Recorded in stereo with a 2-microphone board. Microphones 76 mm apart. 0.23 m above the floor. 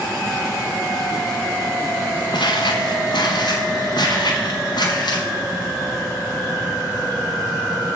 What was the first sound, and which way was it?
Footsteps, 75° left (ahead or behind).